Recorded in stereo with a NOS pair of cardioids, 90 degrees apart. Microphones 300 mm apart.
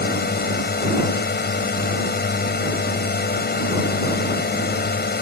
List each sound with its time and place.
0.0 s a drone: 35° left